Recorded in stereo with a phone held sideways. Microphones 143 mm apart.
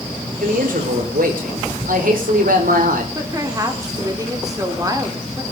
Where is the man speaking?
80° right, 4.5 m.